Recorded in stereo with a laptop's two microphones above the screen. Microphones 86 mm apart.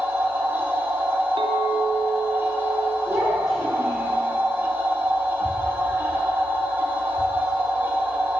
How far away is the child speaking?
About 1.9 m.